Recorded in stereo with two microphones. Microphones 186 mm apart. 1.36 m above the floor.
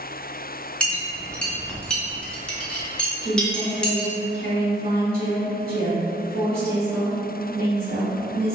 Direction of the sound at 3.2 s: 55° right (ahead or behind).